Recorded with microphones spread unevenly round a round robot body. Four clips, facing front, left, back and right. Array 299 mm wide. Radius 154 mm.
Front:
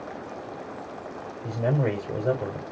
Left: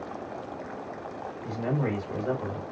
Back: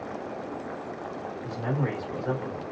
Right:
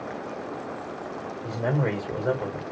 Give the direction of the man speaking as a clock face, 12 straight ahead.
1 o'clock.